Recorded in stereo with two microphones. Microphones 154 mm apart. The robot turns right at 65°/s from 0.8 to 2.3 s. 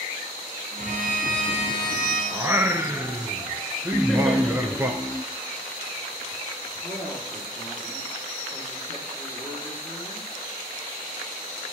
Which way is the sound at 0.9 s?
95° right.